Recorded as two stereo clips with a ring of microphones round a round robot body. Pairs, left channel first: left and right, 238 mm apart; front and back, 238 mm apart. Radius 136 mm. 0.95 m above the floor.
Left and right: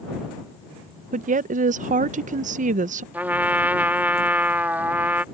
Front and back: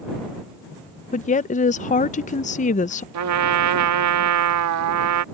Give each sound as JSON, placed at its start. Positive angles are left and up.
{"t": 1.1, "sound": "a woman speaking", "azimuth_deg": -45}
{"t": 3.1, "sound": "a trumpet", "azimuth_deg": -175}